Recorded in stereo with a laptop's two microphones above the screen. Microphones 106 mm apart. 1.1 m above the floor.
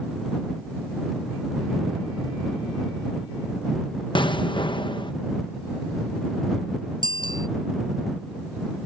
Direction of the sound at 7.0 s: 50° left (ahead or behind).